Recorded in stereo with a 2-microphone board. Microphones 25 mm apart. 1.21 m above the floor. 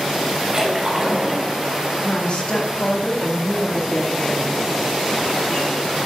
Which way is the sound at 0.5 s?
25° right (ahead or behind).